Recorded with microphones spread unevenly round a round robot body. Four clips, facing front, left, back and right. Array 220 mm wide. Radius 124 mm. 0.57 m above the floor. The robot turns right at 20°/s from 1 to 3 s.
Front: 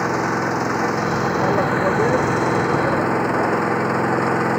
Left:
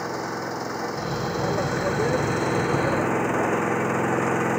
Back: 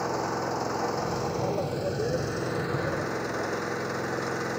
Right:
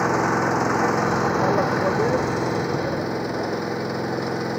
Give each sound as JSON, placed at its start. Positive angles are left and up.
{"t": 0.0, "sound": "an engine running", "azimuth_deg": -30}